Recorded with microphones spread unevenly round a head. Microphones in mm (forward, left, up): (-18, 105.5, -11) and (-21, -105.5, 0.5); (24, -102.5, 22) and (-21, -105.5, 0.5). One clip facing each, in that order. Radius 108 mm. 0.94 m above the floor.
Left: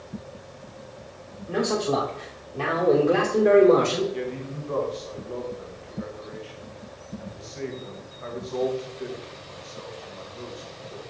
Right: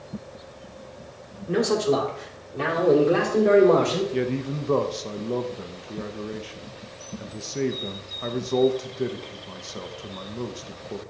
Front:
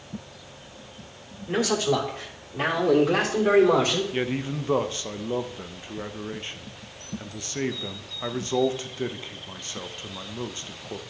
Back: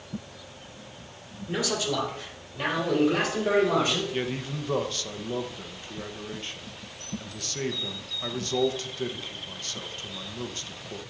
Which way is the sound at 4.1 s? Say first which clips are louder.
Right 6 dB, front 3 dB; 80° right.